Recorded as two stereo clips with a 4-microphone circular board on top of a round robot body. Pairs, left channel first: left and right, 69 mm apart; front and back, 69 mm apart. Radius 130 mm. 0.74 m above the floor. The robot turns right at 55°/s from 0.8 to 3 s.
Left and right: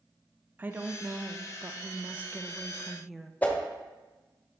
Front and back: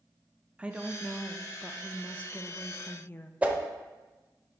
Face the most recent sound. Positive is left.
turn(degrees=130)